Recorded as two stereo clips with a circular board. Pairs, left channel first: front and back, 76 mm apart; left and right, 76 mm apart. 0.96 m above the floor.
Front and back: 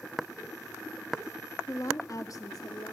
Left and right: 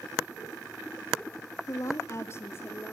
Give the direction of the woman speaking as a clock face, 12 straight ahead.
10 o'clock.